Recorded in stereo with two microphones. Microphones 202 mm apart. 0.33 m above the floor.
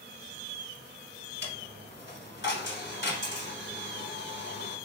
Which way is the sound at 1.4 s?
65° left (ahead or behind).